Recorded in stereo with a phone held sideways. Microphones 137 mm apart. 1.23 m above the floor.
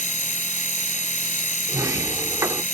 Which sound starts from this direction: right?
A sliding door, at 1.7 s.